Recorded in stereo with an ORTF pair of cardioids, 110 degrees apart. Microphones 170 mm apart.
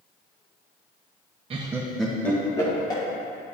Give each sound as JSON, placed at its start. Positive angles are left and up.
{"t": 1.5, "sound": "laughter", "azimuth_deg": -35, "distance_m": 0.8}